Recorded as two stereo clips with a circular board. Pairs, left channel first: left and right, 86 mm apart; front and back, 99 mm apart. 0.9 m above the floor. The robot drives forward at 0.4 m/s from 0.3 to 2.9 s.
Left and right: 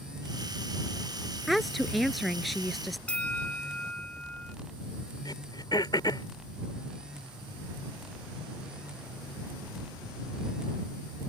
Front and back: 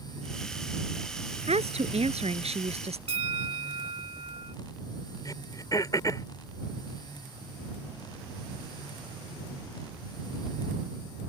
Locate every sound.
1.5 s a woman speaking: straight behind
3.1 s a bell: 165° left
5.2 s throat clearing: 55° left